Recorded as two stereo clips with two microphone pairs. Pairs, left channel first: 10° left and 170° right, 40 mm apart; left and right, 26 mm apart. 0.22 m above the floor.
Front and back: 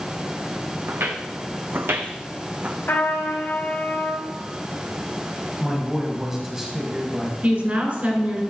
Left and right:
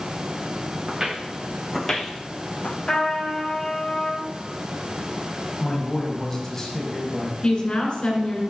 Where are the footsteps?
150° right, 1.0 m; by 2.8 s 125° left, 0.8 m.